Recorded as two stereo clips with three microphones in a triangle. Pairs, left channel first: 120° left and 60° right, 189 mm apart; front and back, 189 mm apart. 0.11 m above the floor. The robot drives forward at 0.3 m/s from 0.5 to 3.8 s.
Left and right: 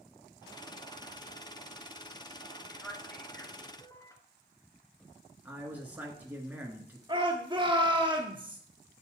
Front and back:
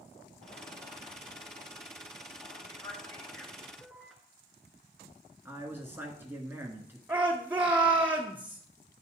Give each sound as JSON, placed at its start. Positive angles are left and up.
{"t": 2.7, "sound": "a man speaking", "azimuth_deg": 45, "distance_m": 1.1}
{"t": 5.5, "sound": "a man speaking", "azimuth_deg": -125, "distance_m": 1.4}
{"t": 7.1, "sound": "a shout", "azimuth_deg": -105, "distance_m": 1.4}